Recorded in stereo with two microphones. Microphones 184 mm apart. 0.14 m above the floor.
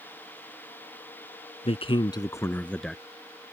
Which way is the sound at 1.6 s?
35° left (ahead or behind).